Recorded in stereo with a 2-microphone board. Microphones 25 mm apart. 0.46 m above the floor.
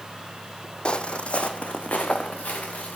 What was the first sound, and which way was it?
Footsteps, 40° left (ahead or behind).